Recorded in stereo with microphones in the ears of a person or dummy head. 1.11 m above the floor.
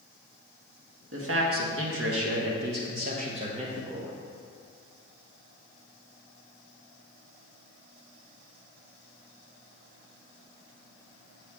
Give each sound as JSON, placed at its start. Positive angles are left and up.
{"t": 1.1, "sound": "a man speaking", "side_deg": -80, "distance_m": 1.5}